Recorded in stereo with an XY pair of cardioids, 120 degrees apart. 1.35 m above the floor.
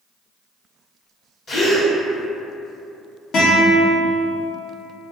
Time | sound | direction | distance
1.5 | a gasp | 45° left | 1.4 m
3.3 | a guitar | 65° left | 1.3 m